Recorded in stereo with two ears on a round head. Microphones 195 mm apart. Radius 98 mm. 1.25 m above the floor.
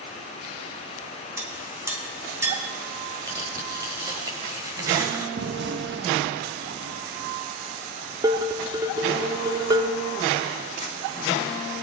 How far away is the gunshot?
About 1.3 m.